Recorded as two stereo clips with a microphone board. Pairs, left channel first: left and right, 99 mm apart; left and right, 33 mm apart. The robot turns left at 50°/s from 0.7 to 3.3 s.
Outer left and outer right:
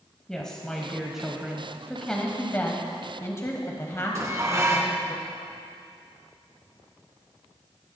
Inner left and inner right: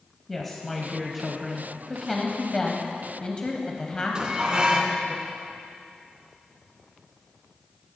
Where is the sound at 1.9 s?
5° left (ahead or behind), 1.2 m; by 5.2 s 30° left (ahead or behind), 1.2 m.